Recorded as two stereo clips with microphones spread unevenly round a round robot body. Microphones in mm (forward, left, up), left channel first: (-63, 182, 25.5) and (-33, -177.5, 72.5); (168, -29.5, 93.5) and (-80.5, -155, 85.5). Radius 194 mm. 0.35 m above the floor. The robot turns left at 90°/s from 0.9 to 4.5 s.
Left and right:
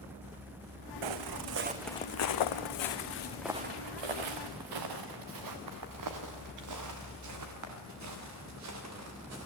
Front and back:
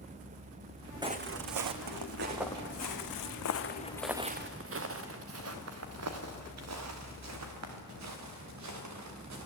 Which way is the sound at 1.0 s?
75° right.